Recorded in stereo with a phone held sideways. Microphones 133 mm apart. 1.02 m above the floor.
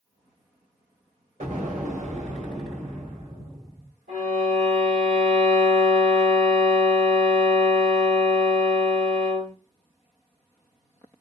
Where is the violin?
70° right (ahead or behind), 2 m.